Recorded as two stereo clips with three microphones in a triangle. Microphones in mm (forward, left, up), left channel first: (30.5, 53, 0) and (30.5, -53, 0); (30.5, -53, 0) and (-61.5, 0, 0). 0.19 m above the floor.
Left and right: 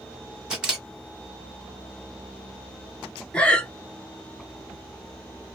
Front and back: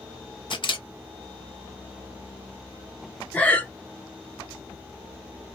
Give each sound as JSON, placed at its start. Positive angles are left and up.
{"t": 0.5, "sound": "a camera shutter", "azimuth_deg": -10, "distance_m": 1.2}
{"t": 3.3, "sound": "breathing", "azimuth_deg": 25, "distance_m": 0.7}